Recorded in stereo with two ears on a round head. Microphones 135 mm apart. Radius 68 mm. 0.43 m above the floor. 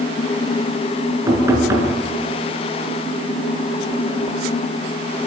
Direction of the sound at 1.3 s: 20° right (ahead or behind).